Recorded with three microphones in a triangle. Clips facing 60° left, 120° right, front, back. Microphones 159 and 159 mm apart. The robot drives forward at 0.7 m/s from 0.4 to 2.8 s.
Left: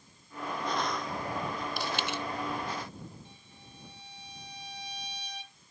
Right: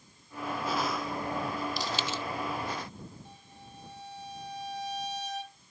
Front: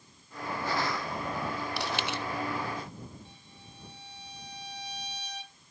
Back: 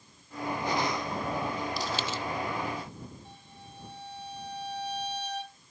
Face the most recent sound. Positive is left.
turn(degrees=-155)